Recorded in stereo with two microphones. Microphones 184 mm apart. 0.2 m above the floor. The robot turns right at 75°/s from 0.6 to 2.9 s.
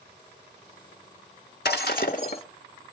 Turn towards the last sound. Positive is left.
turn(degrees=180)